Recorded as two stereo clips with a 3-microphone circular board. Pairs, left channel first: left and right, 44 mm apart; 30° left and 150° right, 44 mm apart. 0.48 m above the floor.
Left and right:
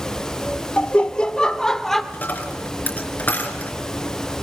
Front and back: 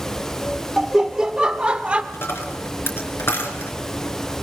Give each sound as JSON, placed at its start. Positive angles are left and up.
{"t": 0.8, "sound": "laughter", "azimuth_deg": 135, "distance_m": 1.7}
{"t": 2.1, "sound": "a dropped coin", "azimuth_deg": 50, "distance_m": 3.5}